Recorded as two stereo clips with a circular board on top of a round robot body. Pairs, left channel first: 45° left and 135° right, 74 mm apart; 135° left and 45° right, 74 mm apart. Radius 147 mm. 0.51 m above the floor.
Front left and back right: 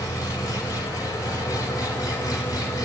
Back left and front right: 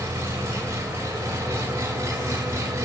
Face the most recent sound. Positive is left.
turn(degrees=10)